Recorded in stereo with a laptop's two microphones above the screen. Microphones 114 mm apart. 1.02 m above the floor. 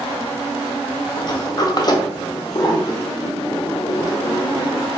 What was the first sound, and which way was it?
A sliding door, 40° left (ahead or behind).